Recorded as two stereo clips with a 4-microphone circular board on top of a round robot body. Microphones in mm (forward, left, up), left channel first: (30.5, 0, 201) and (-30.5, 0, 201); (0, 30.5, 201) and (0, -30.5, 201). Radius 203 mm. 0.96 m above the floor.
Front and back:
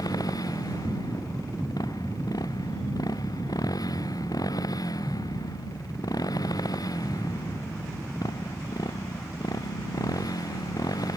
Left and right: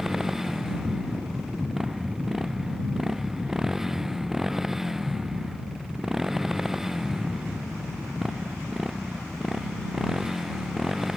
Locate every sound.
0.0 s a motorcycle: 5° right